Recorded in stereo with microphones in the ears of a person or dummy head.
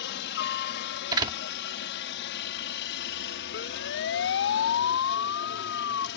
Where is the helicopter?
65° left (ahead or behind).